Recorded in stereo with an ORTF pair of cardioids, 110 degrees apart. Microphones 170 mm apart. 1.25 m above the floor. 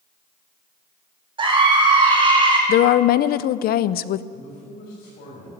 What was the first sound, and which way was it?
A scream, 30° right.